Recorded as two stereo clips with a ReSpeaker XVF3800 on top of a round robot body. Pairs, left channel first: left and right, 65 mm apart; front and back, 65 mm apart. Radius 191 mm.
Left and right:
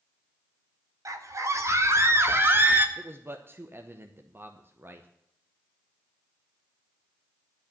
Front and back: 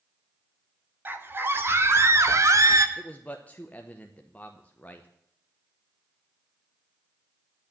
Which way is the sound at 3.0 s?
55° right.